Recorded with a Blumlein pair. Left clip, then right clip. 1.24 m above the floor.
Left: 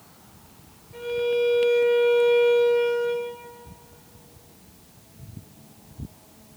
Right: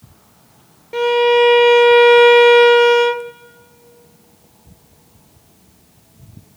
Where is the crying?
I don't hear crying.